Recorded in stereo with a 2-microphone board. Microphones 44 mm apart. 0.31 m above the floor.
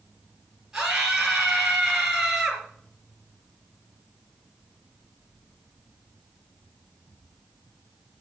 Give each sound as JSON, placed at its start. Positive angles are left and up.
{"t": 0.7, "sound": "a scream", "side_deg": -15, "distance_m": 4.5}